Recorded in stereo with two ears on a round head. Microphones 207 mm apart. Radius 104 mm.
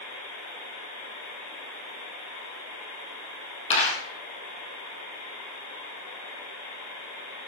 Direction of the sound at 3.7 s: 30° left (ahead or behind).